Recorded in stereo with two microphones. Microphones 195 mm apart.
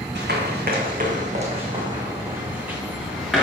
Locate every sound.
0.1 s running footsteps: 60° right (ahead or behind), 3 m; by 3.4 s centre (ahead or behind), 4 m